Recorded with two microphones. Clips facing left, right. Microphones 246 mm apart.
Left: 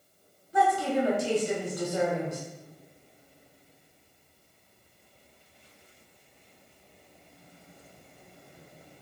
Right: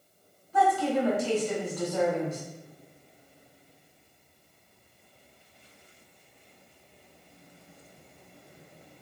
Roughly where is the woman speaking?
Left.